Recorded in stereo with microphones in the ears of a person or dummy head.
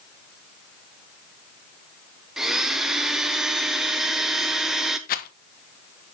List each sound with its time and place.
2.4 s a blender: centre (ahead or behind), 0.6 m
5.1 s a rattle: 45° left (ahead or behind), 0.6 m